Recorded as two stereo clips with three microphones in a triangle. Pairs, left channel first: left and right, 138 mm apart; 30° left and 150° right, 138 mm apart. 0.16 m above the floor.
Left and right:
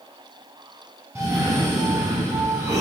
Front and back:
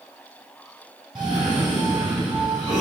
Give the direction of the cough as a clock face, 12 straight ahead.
5 o'clock.